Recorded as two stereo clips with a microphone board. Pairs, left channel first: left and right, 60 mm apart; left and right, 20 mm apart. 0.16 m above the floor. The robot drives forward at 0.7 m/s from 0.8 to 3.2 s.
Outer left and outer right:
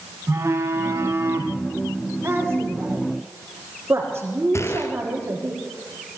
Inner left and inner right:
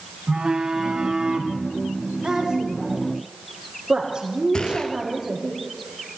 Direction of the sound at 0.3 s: 45° right (ahead or behind).